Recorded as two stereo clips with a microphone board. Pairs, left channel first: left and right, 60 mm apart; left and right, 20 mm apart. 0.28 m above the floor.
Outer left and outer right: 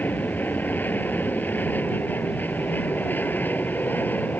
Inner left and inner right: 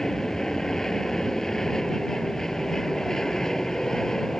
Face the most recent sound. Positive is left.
turn(degrees=30)  # may be behind; listen again after turning